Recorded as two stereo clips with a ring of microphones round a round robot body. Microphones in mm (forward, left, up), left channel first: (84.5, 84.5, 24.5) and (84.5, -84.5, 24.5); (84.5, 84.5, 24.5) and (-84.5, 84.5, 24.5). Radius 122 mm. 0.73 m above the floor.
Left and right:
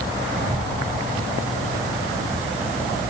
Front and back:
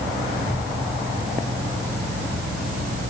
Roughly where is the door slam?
No door slam in this recording.